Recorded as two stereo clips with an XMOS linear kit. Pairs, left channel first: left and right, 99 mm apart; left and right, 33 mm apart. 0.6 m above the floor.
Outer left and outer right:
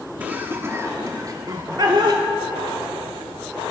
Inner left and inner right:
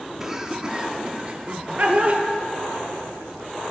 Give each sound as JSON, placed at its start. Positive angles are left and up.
{"t": 0.2, "sound": "laughter", "side_deg": -15, "distance_m": 1.4}